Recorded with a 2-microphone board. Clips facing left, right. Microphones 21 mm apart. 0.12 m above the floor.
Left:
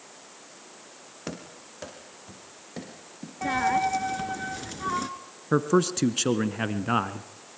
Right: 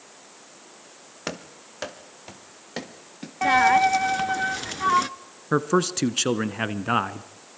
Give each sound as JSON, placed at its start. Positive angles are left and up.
{"t": 1.3, "sound": "running footsteps", "side_deg": -35, "distance_m": 2.5}
{"t": 3.4, "sound": "a dropped coin", "side_deg": -35, "distance_m": 0.8}
{"t": 5.5, "sound": "a man speaking", "side_deg": -15, "distance_m": 1.1}